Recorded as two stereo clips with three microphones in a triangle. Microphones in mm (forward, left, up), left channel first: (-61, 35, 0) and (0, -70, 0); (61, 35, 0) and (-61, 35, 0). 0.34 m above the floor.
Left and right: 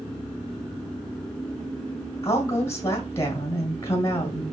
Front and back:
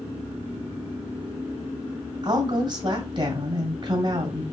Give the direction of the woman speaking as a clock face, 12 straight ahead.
6 o'clock.